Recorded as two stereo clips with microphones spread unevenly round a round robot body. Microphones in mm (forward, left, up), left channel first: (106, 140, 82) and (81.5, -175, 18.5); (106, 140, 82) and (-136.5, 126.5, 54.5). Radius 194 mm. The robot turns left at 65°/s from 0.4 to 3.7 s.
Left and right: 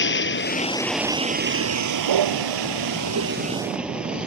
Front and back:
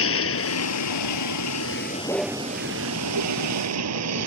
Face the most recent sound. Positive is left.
turn(degrees=175)